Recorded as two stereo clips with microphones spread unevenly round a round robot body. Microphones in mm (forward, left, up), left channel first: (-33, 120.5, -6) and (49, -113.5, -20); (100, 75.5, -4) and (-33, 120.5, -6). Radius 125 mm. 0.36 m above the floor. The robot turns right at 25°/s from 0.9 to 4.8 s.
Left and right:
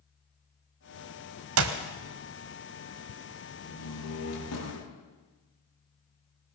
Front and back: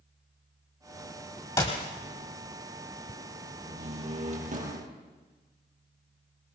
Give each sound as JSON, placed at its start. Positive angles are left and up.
{"t": 1.6, "sound": "a clap", "azimuth_deg": -90, "distance_m": 1.5}
{"t": 3.6, "sound": "a door slam", "azimuth_deg": 110, "distance_m": 5.5}